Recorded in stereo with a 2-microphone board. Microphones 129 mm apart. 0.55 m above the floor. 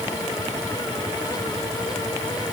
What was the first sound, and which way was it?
Only background noise.